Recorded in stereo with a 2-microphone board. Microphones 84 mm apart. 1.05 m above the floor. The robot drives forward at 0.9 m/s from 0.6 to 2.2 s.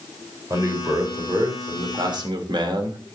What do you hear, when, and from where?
0.5 s a man speaking: 40° right (ahead or behind), 4 m; by 3.0 s 60° right (ahead or behind), 3 m